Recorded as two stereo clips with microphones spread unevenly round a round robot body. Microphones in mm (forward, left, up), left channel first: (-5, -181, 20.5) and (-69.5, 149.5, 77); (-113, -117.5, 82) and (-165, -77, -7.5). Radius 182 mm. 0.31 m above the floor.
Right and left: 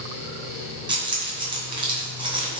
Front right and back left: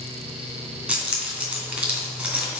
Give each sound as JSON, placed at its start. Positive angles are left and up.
{"t": 0.9, "sound": "keys jangling", "azimuth_deg": 180, "distance_m": 2.0}